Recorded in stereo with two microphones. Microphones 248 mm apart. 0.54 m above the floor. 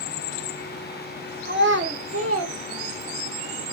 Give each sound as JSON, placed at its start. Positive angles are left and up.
{"t": 1.4, "sound": "a child speaking", "side_deg": -45, "distance_m": 1.0}